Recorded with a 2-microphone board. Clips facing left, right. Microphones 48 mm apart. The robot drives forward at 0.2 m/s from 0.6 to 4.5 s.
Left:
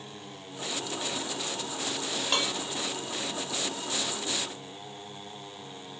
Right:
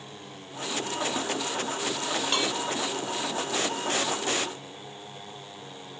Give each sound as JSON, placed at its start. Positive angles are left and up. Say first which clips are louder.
{"t": 2.3, "sound": "dishes clattering", "louder": "even", "side_deg": 0, "distance_m": 0.6}